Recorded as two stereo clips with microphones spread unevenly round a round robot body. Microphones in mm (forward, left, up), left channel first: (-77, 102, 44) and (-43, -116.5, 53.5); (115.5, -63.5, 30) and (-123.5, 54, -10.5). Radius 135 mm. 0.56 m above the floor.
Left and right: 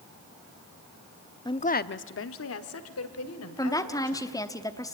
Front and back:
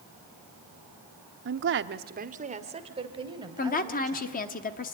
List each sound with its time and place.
1.4 s a woman speaking: 165° left, 0.8 m; by 4.3 s 75° left, 3 m
3.6 s a woman speaking: 35° left, 1.0 m